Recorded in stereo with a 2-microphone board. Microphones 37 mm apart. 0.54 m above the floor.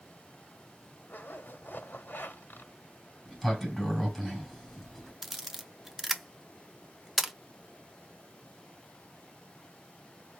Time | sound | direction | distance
1.1 | a zipper | 70° left (ahead or behind) | 1.6 m
3.2 | a sliding door | centre (ahead or behind) | 2 m
5.2 | a camera shutter | 10° right (ahead or behind) | 0.6 m